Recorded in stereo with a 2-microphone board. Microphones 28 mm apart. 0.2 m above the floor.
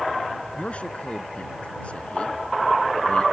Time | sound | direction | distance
0.6 | a man speaking | 45° left (ahead or behind) | ?